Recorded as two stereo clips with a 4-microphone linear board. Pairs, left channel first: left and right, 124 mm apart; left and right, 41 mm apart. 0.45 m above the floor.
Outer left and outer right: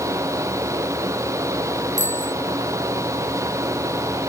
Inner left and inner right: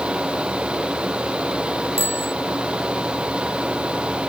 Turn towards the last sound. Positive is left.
turn(degrees=-75)  # may be behind; listen again after turning